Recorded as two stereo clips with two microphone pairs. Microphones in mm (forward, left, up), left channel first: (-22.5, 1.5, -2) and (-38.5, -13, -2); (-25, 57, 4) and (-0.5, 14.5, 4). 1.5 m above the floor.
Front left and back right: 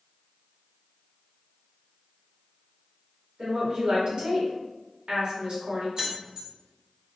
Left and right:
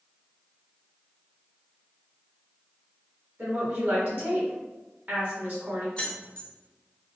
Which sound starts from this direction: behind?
Keys jangling, at 6.0 s.